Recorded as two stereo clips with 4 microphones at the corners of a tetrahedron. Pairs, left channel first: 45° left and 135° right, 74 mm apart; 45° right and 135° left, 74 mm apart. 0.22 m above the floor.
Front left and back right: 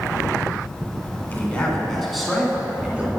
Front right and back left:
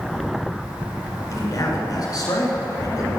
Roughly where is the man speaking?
Ahead.